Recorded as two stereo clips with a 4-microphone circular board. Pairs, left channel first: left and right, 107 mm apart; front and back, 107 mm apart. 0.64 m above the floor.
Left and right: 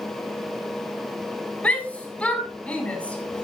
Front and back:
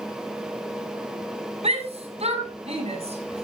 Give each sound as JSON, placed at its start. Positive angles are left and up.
{"t": 1.6, "sound": "a shout", "azimuth_deg": 170, "distance_m": 5.0}